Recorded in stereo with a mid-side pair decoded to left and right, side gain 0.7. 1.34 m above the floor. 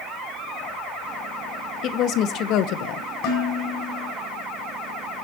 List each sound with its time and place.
1.8 s a woman speaking: 50° left, 1.9 m; by 3.0 s 65° left, 1.1 m
3.2 s dishes clattering: 60° left, 9 m